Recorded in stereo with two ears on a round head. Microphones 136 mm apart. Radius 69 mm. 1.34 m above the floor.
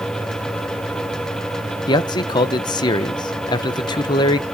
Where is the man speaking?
30° left (ahead or behind), 0.7 m.